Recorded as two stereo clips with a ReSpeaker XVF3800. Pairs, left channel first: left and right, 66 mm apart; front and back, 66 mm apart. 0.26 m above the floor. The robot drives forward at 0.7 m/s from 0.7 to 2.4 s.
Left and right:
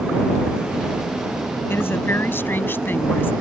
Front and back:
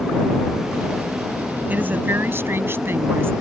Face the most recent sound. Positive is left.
turn(degrees=140)